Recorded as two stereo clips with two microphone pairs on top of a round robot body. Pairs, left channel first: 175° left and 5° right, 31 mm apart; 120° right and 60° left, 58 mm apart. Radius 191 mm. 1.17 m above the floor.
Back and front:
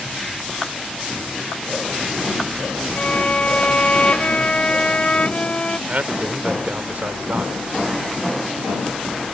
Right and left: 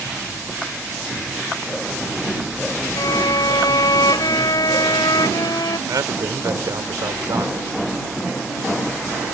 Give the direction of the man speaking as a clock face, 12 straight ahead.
11 o'clock.